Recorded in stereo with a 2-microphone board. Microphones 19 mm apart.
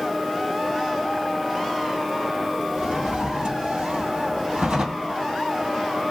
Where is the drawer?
75° right (ahead or behind), 2 m.